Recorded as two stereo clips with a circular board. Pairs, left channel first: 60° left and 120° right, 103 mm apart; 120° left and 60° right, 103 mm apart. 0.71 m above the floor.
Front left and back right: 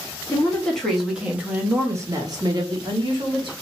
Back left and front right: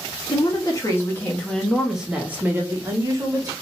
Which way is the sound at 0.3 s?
125° left.